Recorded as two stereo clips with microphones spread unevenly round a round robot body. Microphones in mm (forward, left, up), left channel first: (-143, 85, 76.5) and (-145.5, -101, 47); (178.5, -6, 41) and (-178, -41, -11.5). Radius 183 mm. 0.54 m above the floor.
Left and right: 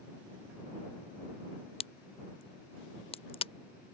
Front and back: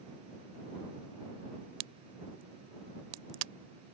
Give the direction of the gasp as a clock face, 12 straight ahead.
I don't hear a gasp.